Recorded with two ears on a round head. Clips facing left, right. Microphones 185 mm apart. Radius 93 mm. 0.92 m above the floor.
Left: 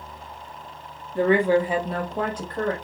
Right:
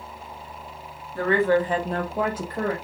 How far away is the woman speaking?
About 0.9 m.